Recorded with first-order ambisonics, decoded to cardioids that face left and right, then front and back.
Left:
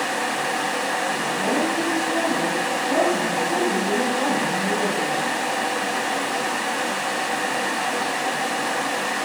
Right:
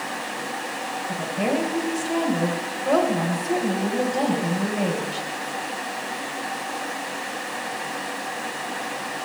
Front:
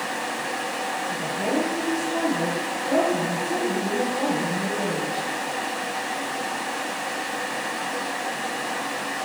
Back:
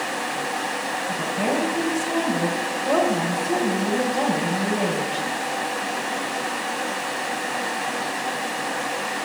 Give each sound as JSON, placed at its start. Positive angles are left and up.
{"t": 1.1, "sound": "a woman speaking", "azimuth_deg": -120, "distance_m": 3.0}